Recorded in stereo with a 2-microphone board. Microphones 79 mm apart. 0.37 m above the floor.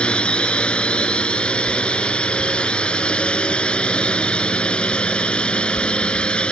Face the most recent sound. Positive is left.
turn(degrees=15)  # may be behind; listen again after turning